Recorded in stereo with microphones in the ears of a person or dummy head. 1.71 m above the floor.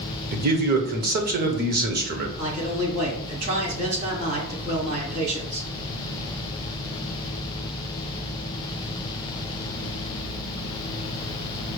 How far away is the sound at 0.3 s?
About 0.8 m.